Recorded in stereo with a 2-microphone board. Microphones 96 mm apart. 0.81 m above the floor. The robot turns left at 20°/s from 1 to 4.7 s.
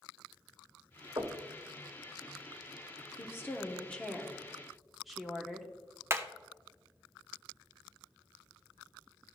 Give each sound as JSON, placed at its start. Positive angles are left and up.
{"t": 1.2, "sound": "knocking", "side_deg": -50, "distance_m": 1.5}
{"t": 3.2, "sound": "a woman speaking", "azimuth_deg": 30, "distance_m": 1.4}
{"t": 6.1, "sound": "hammering", "side_deg": -30, "distance_m": 0.7}